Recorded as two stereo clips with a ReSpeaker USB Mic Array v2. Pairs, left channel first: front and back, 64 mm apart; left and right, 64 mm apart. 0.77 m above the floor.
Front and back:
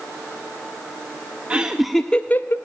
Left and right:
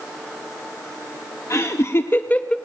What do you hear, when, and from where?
1.5 s laughter: 115° left, 0.7 m; by 2.6 s 20° left, 0.5 m